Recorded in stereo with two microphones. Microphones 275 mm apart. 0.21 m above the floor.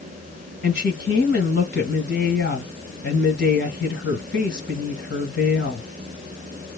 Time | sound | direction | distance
0.6 | a woman speaking | 40° left (ahead or behind) | 1.5 m